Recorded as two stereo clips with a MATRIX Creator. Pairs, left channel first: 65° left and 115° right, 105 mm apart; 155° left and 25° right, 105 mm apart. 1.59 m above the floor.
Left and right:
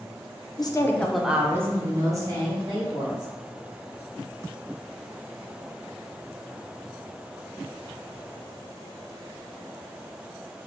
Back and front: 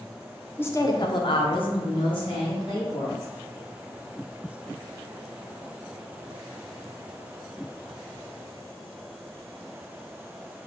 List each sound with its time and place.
0.6 s a woman speaking: 95° left, 0.6 m; by 3.3 s 160° right, 2 m